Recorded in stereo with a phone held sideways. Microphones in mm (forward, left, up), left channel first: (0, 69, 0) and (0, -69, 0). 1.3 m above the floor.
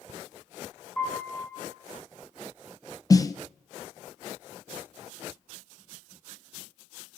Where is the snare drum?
25° left (ahead or behind), 0.5 m.